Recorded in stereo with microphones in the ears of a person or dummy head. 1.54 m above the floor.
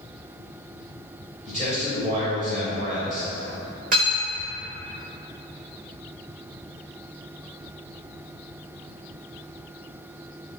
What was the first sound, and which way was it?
A man speaking, 35° right (ahead or behind).